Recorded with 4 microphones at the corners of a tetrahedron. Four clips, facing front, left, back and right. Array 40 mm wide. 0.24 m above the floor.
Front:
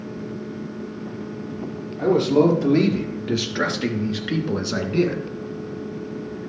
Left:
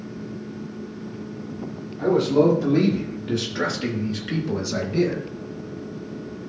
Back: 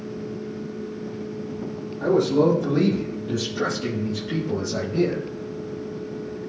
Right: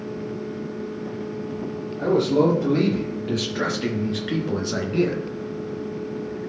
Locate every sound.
2.0 s a man speaking: 10° right, 5.5 m; by 5.2 s 25° right, 2 m